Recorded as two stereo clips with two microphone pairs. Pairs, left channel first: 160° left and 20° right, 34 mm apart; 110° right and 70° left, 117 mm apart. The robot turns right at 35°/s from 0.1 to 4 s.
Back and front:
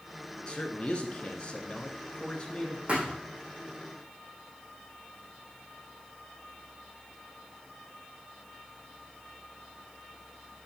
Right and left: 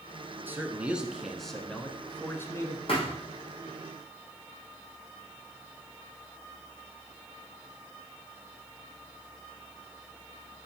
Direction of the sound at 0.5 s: 130° left.